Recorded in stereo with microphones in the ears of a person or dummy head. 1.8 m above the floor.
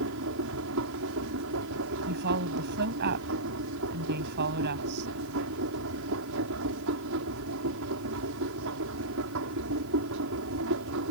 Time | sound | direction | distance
0.0 | a machine running | 75° right (ahead or behind) | ?
2.1 | a woman speaking | 60° right (ahead or behind) | ?